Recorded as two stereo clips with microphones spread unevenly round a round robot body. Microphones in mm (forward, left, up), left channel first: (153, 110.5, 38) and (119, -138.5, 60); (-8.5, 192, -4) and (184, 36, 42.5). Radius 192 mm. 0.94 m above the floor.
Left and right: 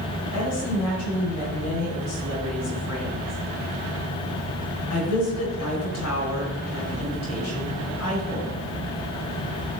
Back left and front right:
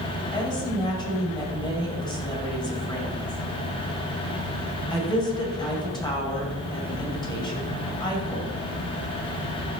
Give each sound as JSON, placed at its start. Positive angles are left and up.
{"t": 0.3, "sound": "a woman speaking", "azimuth_deg": 70, "distance_m": 4.5}